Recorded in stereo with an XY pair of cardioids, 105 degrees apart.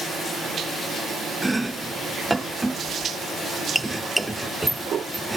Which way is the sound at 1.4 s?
10° right.